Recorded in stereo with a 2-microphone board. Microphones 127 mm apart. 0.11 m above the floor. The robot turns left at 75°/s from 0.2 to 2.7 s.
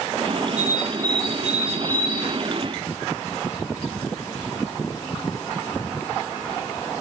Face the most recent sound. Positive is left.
turn(degrees=-100)